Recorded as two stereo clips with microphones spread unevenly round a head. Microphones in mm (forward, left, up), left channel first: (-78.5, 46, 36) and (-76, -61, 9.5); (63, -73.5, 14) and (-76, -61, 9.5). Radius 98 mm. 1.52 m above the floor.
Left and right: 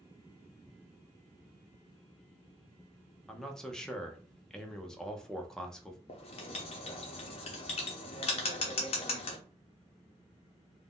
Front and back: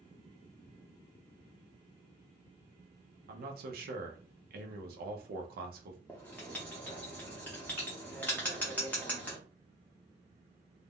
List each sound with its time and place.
3.3 s a man speaking: straight behind, 0.7 m
6.1 s writing: 75° left, 0.6 m